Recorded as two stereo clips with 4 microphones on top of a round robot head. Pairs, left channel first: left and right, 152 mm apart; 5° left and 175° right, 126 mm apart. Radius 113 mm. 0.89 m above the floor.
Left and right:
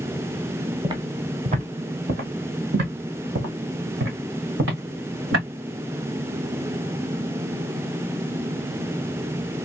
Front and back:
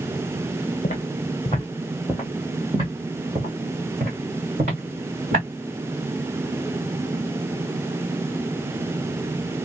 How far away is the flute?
No flute in this recording.